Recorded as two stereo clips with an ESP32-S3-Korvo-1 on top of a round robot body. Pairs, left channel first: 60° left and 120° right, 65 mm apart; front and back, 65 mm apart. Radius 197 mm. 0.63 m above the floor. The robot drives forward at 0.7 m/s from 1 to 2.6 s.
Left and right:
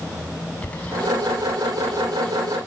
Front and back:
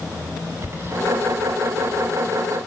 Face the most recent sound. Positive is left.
turn(degrees=135)